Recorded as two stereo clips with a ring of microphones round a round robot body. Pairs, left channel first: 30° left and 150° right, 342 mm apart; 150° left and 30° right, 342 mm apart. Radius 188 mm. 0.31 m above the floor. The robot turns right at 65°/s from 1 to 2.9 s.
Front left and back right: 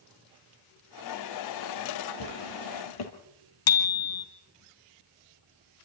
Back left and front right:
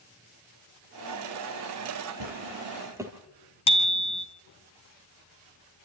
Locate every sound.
2.2 s a drawer: 5° left, 3.5 m; by 3.1 s 50° left, 3.5 m
3.7 s a bicycle bell: 75° left, 3 m